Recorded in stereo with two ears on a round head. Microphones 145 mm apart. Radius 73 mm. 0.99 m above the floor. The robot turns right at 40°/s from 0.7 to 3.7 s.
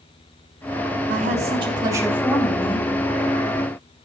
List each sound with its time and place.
1.1 s a woman speaking: 55° right, 2.5 m; by 2.9 s 20° left, 2.5 m